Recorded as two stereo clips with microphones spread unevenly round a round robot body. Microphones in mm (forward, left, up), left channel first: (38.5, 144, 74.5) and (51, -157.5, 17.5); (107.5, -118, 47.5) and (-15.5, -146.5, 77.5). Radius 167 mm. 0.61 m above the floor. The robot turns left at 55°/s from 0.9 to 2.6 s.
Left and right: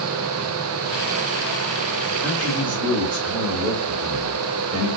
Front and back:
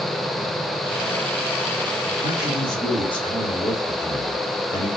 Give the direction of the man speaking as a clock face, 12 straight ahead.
12 o'clock.